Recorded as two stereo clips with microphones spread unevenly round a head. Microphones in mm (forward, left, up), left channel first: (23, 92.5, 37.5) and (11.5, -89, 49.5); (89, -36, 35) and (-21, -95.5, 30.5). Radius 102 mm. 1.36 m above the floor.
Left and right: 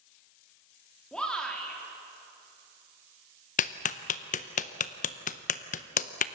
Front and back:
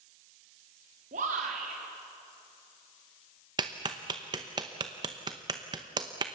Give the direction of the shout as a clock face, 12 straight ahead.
6 o'clock.